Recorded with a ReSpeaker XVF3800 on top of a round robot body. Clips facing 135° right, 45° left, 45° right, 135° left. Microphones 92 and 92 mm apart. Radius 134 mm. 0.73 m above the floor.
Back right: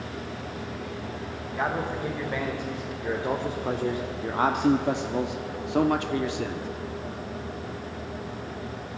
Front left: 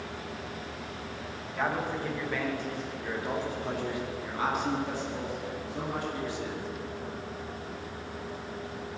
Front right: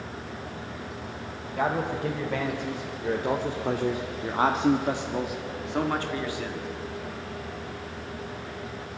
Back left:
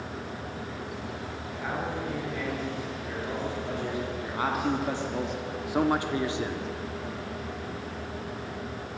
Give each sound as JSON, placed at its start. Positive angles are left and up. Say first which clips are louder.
{"t": 1.6, "sound": "a man speaking", "louder": "back right 2 dB, front right 6 dB", "azimuth_deg": -60, "distance_m": 4.0}